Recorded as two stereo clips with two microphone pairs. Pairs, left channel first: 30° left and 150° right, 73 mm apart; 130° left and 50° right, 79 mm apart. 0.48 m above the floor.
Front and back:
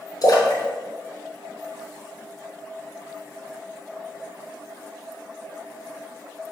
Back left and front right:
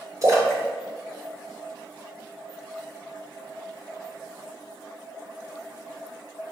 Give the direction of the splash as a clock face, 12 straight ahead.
12 o'clock.